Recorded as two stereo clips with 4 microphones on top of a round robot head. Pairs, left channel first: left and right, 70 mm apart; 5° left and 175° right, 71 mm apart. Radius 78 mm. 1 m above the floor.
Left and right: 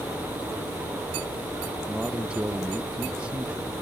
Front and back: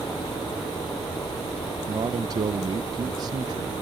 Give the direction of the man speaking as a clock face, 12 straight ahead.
6 o'clock.